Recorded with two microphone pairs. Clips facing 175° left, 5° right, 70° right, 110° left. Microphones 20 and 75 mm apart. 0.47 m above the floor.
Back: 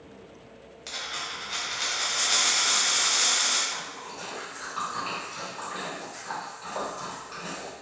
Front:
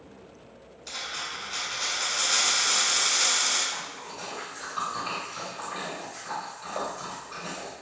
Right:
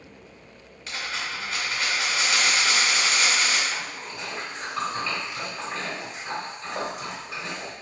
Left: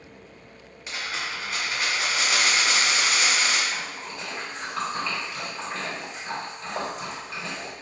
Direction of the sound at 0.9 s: 175° right.